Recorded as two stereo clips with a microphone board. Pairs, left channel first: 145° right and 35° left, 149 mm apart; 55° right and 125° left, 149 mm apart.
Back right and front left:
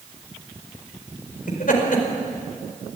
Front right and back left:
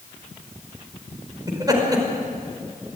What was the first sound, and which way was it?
Laughter, 170° right.